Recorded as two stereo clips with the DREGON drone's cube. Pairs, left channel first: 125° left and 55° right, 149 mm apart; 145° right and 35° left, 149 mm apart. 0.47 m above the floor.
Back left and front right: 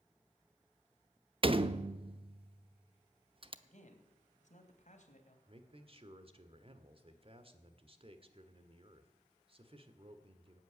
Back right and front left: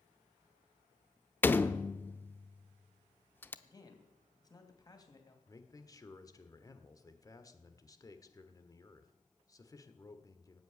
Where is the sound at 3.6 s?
150° left, 2.5 m.